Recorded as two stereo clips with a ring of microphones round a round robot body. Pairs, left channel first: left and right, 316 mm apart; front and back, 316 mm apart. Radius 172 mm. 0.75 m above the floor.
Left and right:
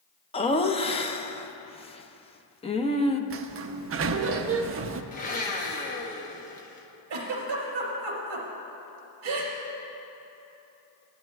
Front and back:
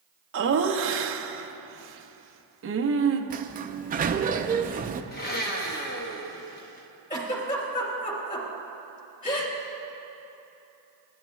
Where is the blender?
40° left, 0.9 m.